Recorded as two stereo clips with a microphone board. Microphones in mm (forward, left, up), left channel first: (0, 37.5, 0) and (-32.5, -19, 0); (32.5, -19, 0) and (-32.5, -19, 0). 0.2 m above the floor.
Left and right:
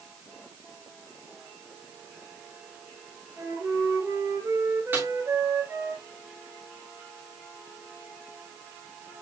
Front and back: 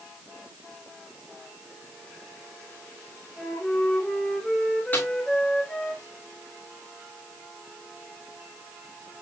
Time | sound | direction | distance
3.4 | a flute | 80° right | 3.5 m
4.9 | a snare drum | 60° right | 5.5 m